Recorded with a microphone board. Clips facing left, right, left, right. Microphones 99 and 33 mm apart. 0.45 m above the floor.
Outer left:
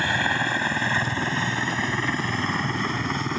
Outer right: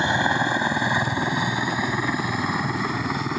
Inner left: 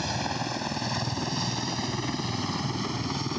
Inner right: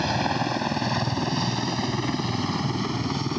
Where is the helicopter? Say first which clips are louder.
Outer right 3 dB, inner right 6 dB; 20° right (ahead or behind); by 3.4 s 5° right (ahead or behind).